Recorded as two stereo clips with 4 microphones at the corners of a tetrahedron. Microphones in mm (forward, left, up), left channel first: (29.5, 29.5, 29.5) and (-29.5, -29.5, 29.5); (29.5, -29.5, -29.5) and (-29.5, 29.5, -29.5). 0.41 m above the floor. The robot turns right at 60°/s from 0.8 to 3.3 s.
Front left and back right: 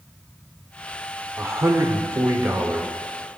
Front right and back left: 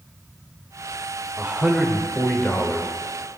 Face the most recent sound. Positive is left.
turn(degrees=-50)